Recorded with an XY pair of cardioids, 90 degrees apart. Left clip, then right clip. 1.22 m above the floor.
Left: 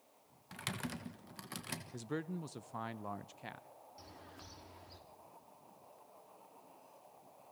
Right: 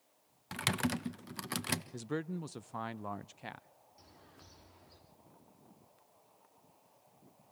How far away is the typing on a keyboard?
About 1.0 m.